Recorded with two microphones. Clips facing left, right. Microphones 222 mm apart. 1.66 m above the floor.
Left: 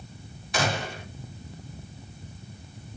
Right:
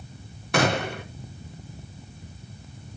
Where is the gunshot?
70° right (ahead or behind), 1.4 m.